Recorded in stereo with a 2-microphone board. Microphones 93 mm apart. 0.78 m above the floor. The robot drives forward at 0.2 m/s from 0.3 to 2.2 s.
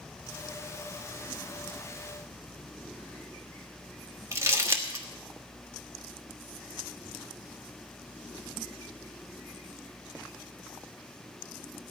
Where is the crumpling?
30° right (ahead or behind), 1.3 m.